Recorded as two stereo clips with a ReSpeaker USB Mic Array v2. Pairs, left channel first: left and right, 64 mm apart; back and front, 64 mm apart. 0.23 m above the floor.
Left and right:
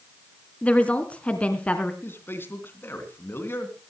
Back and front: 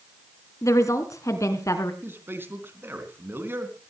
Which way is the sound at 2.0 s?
45° left.